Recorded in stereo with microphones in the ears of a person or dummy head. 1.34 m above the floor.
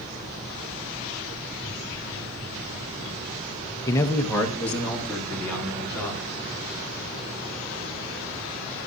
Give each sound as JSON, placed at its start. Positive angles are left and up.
{"t": 3.9, "sound": "a man speaking", "side_deg": 20, "distance_m": 0.6}